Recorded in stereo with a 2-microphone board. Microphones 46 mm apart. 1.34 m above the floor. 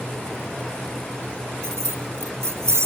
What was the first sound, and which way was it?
Keys jangling, 75° right (ahead or behind).